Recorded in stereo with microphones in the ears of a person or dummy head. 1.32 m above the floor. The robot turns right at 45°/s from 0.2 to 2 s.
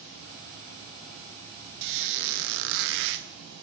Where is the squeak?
55° right (ahead or behind), 0.8 m.